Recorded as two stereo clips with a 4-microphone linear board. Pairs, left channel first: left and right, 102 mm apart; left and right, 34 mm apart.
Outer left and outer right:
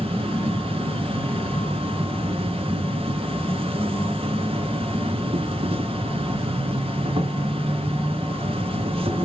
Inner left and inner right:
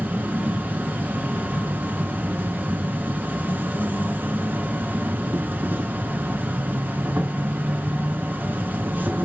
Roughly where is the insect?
Right.